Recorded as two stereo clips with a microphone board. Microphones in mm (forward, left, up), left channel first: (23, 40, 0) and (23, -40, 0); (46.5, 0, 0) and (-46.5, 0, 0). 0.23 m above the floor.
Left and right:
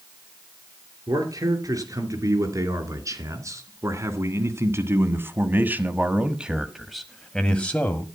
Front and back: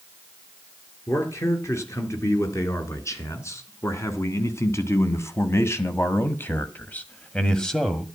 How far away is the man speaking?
About 4 m.